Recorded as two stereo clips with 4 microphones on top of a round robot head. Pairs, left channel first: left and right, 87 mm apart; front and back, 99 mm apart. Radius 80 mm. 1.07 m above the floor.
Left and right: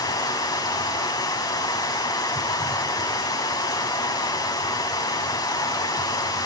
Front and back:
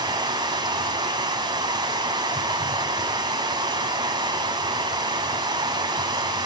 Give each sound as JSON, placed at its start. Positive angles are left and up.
{"t": 0.0, "sound": "running water", "azimuth_deg": 135, "distance_m": 4.5}